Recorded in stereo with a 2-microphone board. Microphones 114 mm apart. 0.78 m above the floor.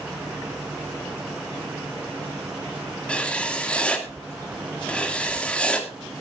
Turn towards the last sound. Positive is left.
turn(degrees=10)  # may be behind; listen again after turning